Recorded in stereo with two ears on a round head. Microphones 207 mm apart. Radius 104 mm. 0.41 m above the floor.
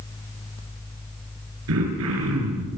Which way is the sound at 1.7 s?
65° right (ahead or behind).